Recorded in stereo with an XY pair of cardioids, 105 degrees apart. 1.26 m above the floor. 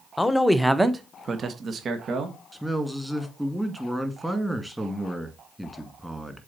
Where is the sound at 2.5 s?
5° right, 2.0 m.